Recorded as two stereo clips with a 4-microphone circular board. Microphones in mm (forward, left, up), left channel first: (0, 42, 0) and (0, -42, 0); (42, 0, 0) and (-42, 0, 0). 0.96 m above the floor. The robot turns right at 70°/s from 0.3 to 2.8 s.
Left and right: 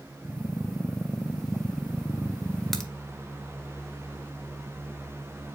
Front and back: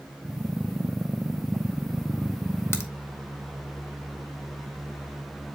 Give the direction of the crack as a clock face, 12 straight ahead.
12 o'clock.